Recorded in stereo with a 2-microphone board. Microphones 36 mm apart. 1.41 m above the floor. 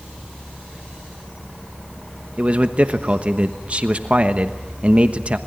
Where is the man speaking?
35° right (ahead or behind), 1.1 m.